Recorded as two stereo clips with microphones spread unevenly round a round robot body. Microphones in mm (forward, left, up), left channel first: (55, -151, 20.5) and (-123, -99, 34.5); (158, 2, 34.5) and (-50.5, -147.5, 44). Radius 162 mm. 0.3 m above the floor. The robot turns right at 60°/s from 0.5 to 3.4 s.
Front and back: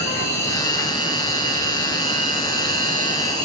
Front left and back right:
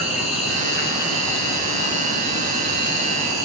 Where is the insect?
45° left, 1.5 m; by 3.5 s 140° right, 1.5 m.